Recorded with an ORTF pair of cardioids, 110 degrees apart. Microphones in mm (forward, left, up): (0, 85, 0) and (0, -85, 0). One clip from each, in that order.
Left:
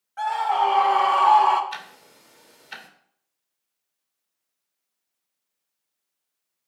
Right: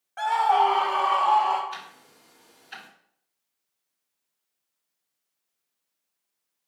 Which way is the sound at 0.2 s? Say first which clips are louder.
Right 1 dB; 15° right.